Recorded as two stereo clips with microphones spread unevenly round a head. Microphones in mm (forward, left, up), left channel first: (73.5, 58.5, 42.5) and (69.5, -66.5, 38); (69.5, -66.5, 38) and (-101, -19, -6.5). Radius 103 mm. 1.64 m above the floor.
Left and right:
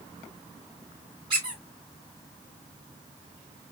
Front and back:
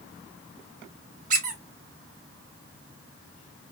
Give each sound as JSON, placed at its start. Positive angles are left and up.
{"t": 1.3, "sound": "a squeak", "azimuth_deg": -155, "distance_m": 1.1}